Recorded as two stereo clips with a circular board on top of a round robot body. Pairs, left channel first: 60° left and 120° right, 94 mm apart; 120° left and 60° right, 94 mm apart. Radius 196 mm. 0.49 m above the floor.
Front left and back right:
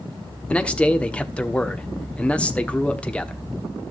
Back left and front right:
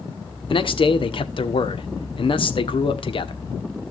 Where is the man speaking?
135° left, 1.3 m.